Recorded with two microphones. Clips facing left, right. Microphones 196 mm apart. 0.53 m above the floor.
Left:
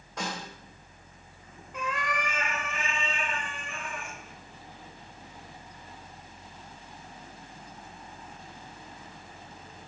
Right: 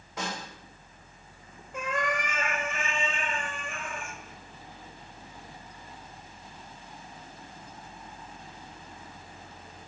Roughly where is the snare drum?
Centre.